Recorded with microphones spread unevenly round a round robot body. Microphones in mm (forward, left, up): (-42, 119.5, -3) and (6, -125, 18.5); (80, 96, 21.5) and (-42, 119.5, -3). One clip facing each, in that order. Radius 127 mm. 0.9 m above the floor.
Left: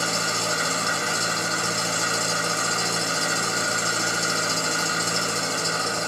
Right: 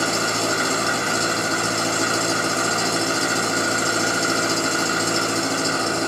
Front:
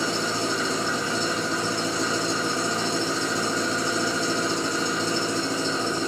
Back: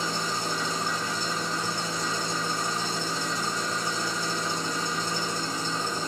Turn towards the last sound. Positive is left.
turn(degrees=-45)